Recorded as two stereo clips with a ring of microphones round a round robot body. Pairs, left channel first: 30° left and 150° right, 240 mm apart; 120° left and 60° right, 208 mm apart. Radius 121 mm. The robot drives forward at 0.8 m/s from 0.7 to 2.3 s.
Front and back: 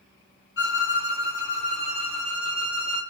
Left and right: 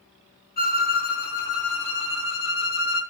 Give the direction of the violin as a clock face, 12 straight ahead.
9 o'clock.